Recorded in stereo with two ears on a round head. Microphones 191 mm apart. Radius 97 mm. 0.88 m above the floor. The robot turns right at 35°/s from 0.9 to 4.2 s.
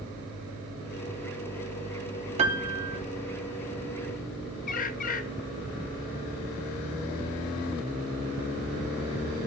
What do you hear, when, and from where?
2.4 s a piano: 30° right (ahead or behind), 0.7 m; by 3.0 s 45° right (ahead or behind), 0.7 m
4.7 s a bird: 40° left (ahead or behind), 0.6 m